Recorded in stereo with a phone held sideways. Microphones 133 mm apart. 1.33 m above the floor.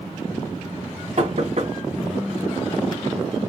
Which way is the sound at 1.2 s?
55° right (ahead or behind).